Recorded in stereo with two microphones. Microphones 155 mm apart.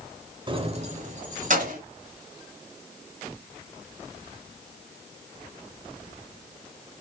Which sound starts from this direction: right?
Keys jangling, at 0.5 s.